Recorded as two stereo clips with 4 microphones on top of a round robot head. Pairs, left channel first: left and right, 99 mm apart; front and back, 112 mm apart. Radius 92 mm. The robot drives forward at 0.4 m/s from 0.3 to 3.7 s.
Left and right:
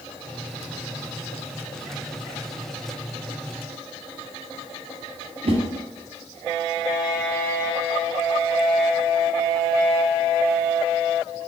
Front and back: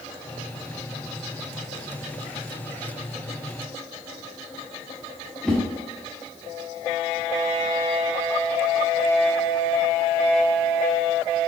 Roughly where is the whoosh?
Right.